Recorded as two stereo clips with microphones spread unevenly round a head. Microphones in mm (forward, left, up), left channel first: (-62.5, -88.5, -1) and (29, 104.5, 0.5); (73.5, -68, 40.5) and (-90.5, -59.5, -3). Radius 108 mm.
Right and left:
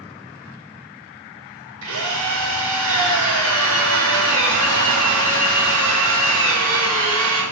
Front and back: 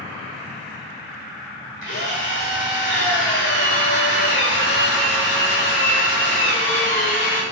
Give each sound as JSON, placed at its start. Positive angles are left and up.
{"t": 1.8, "sound": "a drill", "azimuth_deg": 40, "distance_m": 8.0}